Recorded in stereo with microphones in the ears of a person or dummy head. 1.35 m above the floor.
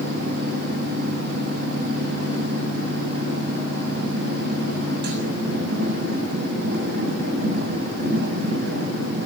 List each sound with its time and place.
0.0 s a machine running: 55° right (ahead or behind), 7 m